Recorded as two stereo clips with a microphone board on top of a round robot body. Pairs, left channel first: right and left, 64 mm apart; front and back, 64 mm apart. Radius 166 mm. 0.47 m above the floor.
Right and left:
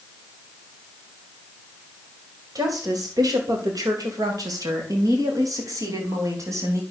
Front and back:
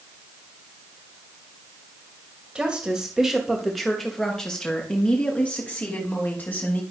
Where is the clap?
I don't hear a clap.